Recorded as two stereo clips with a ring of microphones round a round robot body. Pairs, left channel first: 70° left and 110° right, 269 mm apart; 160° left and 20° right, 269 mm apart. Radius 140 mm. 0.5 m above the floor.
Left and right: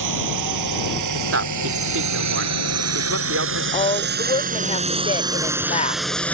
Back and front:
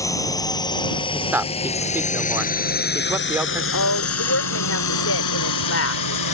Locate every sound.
0.0 s a drone: 125° right; by 6.3 s 150° left
1.1 s a man speaking: 105° right
3.7 s a woman speaking: 130° left